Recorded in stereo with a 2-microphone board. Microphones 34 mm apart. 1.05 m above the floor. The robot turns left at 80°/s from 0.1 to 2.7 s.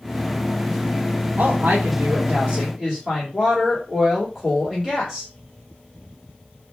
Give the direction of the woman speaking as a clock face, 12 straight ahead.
3 o'clock.